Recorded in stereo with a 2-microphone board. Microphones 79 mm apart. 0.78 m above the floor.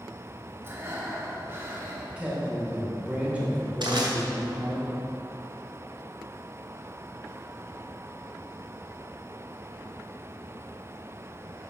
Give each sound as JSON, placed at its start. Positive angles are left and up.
{"t": 0.6, "sound": "breathing", "side_deg": -30, "distance_m": 1.2}
{"t": 2.2, "sound": "a man speaking", "side_deg": -15, "distance_m": 2.5}
{"t": 3.8, "sound": "crushing", "side_deg": -85, "distance_m": 2.0}